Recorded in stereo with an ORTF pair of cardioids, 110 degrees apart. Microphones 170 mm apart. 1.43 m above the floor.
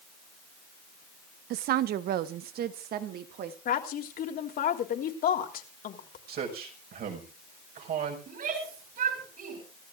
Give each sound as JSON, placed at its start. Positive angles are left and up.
{"t": 1.5, "sound": "a woman speaking", "azimuth_deg": -65, "distance_m": 0.7}
{"t": 3.6, "sound": "a woman speaking", "azimuth_deg": 60, "distance_m": 3.0}
{"t": 6.3, "sound": "a man speaking", "azimuth_deg": -65, "distance_m": 5.5}
{"t": 8.3, "sound": "a shout", "azimuth_deg": -55, "distance_m": 6.5}